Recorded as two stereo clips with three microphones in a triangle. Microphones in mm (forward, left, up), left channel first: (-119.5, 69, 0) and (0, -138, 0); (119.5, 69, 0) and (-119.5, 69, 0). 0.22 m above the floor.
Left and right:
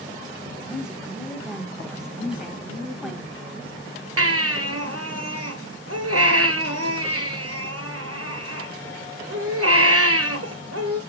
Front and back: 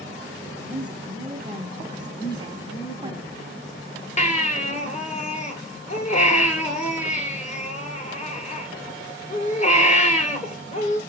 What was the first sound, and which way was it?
A woman speaking, 145° right.